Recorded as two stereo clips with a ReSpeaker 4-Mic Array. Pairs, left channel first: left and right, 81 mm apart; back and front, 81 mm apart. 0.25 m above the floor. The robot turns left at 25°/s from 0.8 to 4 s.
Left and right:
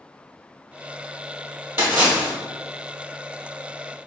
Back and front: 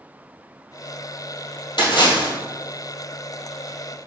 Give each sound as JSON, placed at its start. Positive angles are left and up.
{"t": 1.8, "sound": "a splash", "azimuth_deg": -155, "distance_m": 1.6}